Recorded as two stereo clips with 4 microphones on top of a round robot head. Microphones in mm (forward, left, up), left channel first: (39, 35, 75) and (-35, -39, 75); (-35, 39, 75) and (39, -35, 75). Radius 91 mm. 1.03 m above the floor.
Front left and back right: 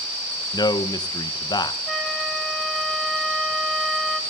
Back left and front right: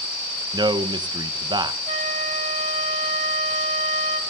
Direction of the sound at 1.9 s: 40° right.